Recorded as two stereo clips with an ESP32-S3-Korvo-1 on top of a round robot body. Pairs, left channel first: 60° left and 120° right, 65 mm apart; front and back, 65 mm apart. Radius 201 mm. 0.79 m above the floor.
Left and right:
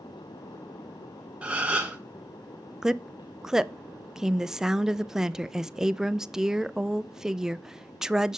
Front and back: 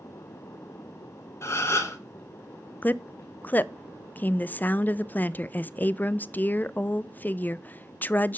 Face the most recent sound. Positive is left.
turn(degrees=-45)